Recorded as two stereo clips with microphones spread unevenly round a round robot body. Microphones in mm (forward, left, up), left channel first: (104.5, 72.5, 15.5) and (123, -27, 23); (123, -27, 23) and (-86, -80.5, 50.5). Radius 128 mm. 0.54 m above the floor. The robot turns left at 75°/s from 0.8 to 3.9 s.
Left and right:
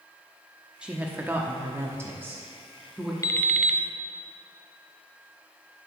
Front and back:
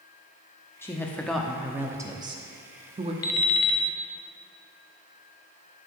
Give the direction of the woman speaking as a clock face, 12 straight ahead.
12 o'clock.